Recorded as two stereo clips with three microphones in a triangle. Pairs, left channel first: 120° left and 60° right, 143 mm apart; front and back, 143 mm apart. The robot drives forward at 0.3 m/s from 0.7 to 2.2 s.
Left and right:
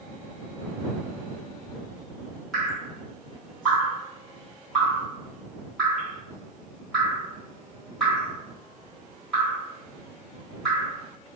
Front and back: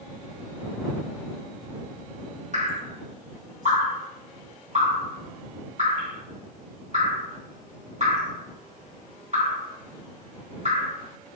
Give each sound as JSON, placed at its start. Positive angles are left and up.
{"t": 2.5, "sound": "dripping", "azimuth_deg": -155, "distance_m": 1.3}